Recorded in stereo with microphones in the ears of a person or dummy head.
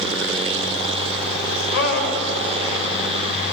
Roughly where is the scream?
Left.